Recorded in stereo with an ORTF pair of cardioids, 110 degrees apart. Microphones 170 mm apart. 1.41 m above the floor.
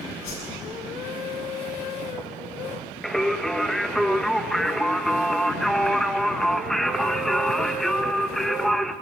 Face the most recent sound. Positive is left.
turn(degrees=0)